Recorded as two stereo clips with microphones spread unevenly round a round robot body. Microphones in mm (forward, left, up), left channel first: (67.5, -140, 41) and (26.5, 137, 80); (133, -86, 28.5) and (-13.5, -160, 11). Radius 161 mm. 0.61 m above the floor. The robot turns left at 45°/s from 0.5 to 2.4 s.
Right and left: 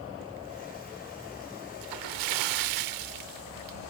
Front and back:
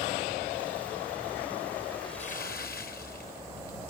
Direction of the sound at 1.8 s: 115° left.